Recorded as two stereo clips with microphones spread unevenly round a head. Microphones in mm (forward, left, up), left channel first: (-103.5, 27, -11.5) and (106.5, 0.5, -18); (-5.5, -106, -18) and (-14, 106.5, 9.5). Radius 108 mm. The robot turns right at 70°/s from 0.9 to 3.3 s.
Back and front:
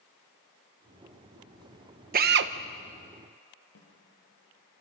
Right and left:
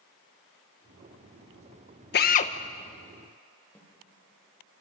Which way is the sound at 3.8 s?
175° right.